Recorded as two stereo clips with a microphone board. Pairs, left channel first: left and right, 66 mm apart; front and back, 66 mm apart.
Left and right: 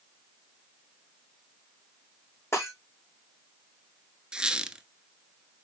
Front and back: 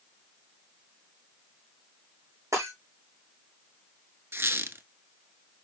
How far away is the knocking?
No knocking in this recording.